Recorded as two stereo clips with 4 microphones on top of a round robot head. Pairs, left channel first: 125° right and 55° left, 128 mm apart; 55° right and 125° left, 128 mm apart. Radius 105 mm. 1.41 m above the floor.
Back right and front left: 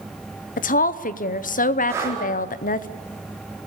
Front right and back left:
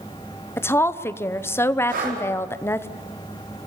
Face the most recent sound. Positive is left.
turn(degrees=125)